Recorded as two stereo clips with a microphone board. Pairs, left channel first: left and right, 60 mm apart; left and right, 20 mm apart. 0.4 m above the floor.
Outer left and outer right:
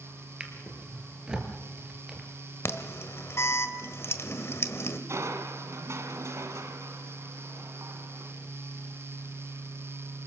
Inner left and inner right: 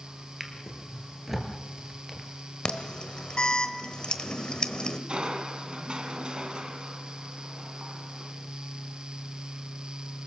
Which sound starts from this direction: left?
An alarm, at 2.6 s.